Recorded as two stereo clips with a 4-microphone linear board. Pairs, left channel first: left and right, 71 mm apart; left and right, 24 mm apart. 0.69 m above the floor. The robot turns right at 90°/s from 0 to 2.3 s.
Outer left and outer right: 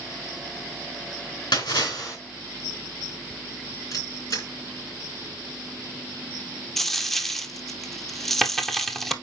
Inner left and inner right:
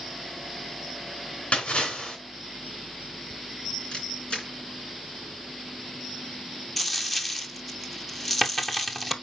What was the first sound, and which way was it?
A splash, 80° left.